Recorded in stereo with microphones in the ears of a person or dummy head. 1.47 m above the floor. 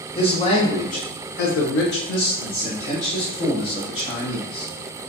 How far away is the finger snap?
I don't hear a finger snap.